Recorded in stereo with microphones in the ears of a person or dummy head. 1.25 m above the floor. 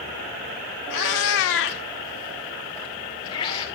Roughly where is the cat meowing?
Left.